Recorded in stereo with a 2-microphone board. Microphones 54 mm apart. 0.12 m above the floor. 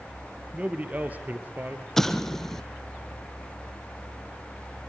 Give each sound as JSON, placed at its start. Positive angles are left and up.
{"t": 0.5, "sound": "a man speaking", "side_deg": -25, "distance_m": 3.0}
{"t": 2.0, "sound": "an explosion", "side_deg": 5, "distance_m": 1.3}